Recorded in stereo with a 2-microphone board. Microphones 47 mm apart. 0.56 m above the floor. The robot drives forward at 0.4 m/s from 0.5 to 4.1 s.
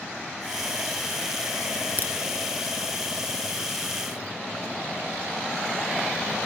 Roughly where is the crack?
Left.